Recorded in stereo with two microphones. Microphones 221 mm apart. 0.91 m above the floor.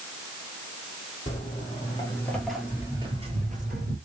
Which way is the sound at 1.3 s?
30° left (ahead or behind).